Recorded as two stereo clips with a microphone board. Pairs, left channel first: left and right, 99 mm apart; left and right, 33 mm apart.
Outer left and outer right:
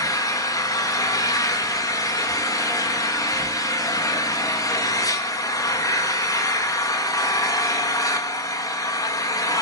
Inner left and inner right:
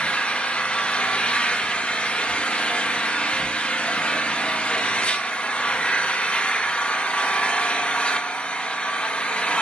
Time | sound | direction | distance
0.0 | an engine running | 35° left (ahead or behind) | 1.1 m